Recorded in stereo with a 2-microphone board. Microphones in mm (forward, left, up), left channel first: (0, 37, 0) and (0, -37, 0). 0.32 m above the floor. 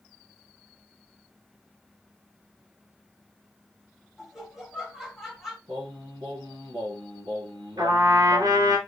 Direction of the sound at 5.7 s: 85° right.